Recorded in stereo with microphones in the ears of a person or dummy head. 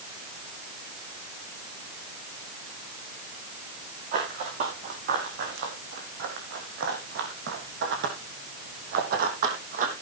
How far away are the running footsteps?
About 5.5 m.